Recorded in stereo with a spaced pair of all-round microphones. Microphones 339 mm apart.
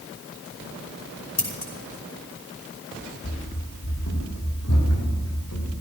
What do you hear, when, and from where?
1.4 s scissors: 50° left (ahead or behind), 5.5 m
3.2 s running footsteps: 35° left (ahead or behind), 3.5 m; by 5.8 s 55° left (ahead or behind), 5 m